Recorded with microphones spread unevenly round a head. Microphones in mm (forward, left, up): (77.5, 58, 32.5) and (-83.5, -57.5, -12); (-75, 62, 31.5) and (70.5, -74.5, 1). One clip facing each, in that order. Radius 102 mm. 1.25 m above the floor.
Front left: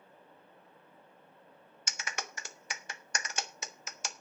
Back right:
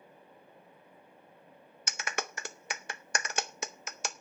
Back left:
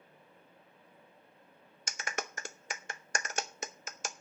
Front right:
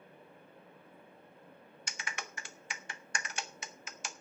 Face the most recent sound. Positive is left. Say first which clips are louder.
# back right 6 dB, back left 7 dB
turn(degrees=170)